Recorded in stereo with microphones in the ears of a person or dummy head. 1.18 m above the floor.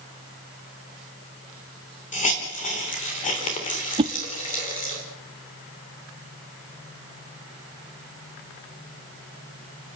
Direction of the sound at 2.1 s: 40° left (ahead or behind).